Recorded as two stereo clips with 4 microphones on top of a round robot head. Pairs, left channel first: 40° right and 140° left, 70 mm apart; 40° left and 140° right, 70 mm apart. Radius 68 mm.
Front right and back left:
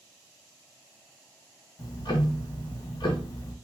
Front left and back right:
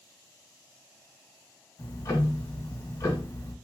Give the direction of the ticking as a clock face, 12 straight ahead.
12 o'clock.